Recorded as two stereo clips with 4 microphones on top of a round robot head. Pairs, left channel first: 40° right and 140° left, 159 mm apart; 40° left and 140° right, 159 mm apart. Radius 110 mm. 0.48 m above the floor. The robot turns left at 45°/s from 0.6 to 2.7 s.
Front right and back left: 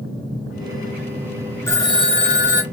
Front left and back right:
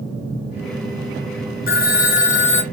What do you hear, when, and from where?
1.7 s a phone ringing: 35° left, 1.1 m; by 2.6 s 10° right, 1.1 m